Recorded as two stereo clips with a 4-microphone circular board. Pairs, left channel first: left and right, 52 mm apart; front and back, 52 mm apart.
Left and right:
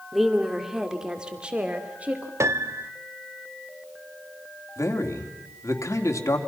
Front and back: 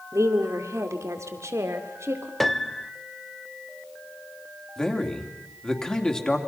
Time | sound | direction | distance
0.1 | a woman speaking | straight behind | 2.5 m
2.4 | a piano | 85° right | 0.8 m
4.8 | a man speaking | 75° left | 3 m